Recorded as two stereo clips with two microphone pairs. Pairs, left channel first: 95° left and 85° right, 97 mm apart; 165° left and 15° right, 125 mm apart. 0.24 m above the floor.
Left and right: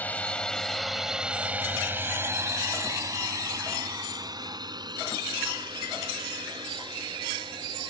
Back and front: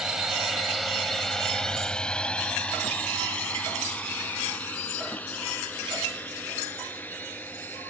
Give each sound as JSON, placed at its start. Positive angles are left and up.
{"t": 0.0, "sound": "a drone", "azimuth_deg": 60}